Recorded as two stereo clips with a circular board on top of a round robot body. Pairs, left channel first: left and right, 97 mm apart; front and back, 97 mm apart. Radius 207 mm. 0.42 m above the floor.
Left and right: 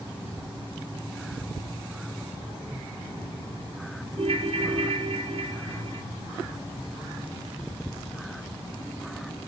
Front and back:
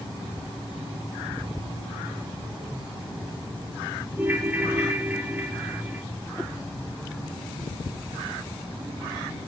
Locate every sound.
4.2 s a ringtone: 110° right, 1.4 m